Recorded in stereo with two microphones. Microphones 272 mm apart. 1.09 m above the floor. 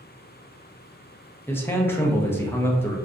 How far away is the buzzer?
No buzzer in this recording.